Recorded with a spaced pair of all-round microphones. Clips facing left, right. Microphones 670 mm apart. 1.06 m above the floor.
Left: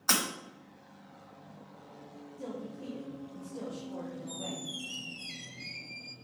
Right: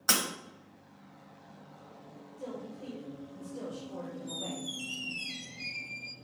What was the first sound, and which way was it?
Breaking glass, 45° right (ahead or behind).